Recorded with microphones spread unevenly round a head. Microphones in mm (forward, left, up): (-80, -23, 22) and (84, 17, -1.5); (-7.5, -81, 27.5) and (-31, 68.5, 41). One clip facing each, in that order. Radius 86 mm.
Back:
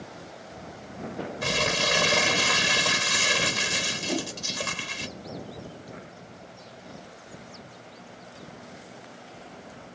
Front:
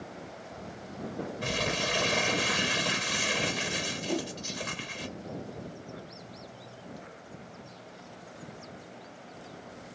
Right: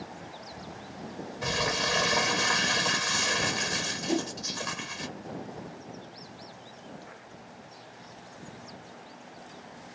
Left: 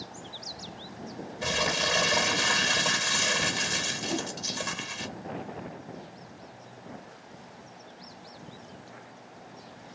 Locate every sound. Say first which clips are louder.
1.4 s crumpling: back 5 dB, left 1 dB; 160° left, 1.3 m
4.1 s a whoosh: back 2 dB, right 4 dB; 85° right, 0.6 m